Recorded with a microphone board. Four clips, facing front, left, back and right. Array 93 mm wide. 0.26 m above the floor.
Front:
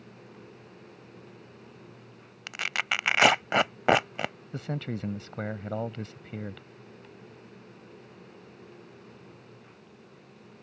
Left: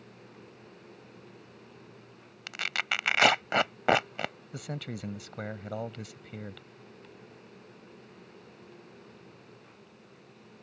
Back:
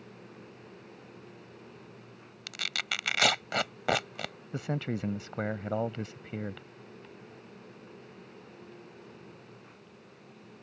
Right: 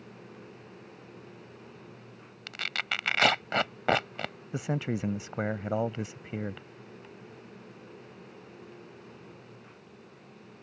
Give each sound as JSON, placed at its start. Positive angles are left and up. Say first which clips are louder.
{"t": 2.5, "sound": "tearing paper", "louder": "left 2 dB, front 6 dB", "azimuth_deg": 20}
{"t": 4.5, "sound": "a man speaking", "louder": "right 7 dB, back 6 dB", "azimuth_deg": -110}